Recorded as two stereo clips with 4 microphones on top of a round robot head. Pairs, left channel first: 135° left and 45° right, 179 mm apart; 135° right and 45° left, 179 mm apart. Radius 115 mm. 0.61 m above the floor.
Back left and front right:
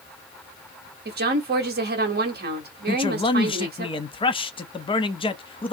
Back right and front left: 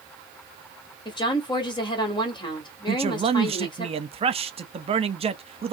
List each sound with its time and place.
1.1 s a woman speaking: 70° right, 1.5 m
2.9 s a man speaking: 85° left, 0.7 m